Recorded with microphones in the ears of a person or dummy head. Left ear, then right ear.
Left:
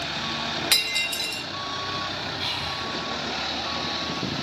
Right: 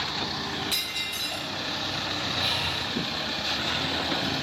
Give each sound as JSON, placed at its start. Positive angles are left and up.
{"t": 0.7, "sound": "breaking glass", "side_deg": 50, "distance_m": 0.7}
{"t": 2.4, "sound": "breathing", "side_deg": 30, "distance_m": 4.0}